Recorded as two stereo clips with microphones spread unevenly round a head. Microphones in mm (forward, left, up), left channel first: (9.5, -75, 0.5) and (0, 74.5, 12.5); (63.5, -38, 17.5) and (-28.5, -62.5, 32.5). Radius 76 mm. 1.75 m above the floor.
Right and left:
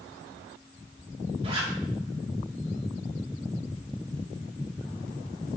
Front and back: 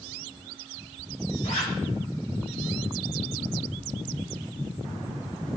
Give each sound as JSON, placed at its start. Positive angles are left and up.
{"t": 1.4, "sound": "a zipper", "azimuth_deg": 40, "distance_m": 3.0}